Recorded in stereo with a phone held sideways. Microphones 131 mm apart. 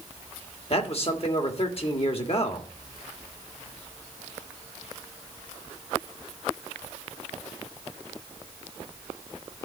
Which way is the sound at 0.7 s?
50° left (ahead or behind).